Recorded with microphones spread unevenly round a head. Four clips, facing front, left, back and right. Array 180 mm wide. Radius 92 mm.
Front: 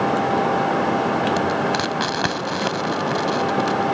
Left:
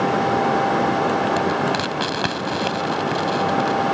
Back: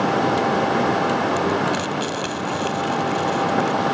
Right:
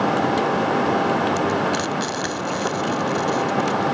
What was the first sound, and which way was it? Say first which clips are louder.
Frying: left 1 dB, even; 40° left.